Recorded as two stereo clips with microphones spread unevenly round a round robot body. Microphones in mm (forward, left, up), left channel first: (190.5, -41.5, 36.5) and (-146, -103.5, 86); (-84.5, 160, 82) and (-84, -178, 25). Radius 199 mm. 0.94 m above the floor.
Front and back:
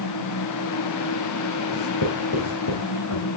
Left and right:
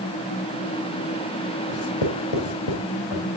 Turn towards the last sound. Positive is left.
turn(degrees=65)